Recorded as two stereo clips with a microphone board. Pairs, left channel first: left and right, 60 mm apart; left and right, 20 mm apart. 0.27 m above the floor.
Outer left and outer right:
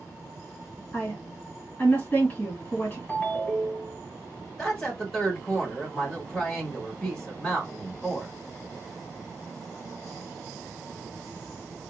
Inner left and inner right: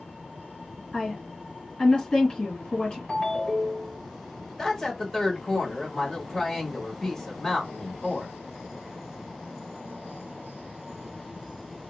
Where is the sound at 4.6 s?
10° left (ahead or behind), 1.8 m.